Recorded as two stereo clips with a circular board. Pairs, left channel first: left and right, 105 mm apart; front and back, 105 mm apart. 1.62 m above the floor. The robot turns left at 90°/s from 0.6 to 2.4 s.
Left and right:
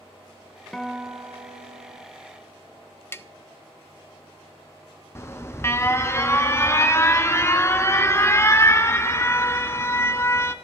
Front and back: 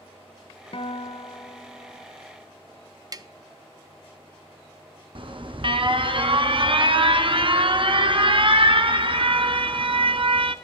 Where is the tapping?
145° left, 0.6 m.